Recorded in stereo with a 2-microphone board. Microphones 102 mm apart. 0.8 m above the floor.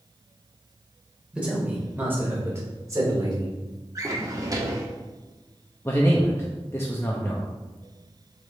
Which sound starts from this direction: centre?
A man speaking, at 1.3 s.